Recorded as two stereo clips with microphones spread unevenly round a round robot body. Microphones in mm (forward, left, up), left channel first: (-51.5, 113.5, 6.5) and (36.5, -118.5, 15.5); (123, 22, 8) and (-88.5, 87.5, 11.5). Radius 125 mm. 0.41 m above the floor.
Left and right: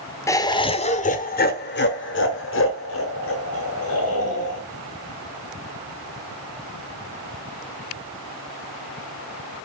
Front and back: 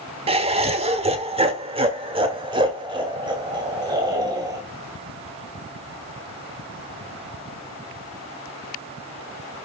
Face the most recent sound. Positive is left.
turn(degrees=90)